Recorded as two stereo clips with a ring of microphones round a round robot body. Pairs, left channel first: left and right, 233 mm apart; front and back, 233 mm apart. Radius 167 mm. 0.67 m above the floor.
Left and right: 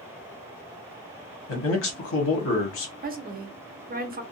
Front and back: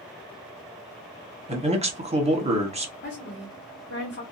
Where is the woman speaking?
40° right, 0.9 m.